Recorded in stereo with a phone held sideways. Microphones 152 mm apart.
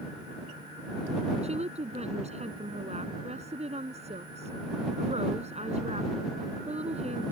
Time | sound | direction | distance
1.4 | a woman speaking | 45° right (ahead or behind) | ?